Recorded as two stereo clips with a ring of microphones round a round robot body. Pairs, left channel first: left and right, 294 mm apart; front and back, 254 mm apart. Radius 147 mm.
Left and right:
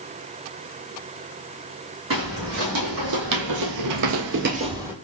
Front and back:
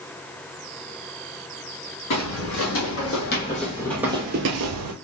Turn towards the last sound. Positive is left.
turn(degrees=-175)